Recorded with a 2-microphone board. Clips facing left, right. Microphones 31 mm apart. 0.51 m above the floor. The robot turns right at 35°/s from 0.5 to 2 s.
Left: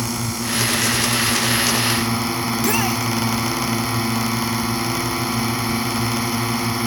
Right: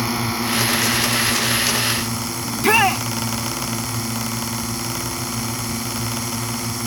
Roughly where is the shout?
Right.